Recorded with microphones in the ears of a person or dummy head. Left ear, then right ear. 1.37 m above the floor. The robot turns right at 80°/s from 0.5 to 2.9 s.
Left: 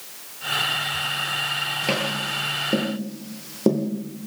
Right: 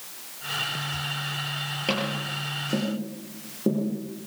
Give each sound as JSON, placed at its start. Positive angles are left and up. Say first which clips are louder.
{"t": 1.9, "sound": "tapping", "louder": "left 4 dB", "side_deg": -5, "distance_m": 7.0}